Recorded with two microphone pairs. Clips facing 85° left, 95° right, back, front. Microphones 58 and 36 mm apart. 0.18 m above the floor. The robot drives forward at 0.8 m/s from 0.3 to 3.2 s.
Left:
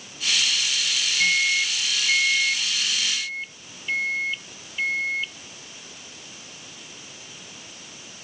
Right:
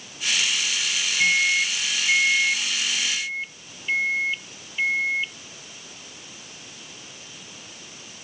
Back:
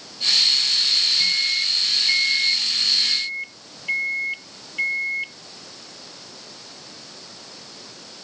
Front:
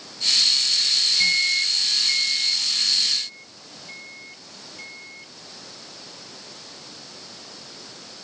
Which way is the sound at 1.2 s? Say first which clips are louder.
Right 2 dB, front 1 dB; 20° right.